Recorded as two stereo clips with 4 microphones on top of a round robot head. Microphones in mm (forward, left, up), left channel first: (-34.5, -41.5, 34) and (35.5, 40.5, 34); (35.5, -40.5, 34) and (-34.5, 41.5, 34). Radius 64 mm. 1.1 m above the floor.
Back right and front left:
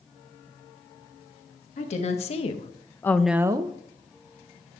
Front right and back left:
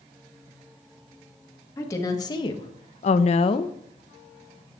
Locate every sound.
1.8 s a woman speaking: 110° right, 1.3 m; by 3.8 s 5° left, 0.6 m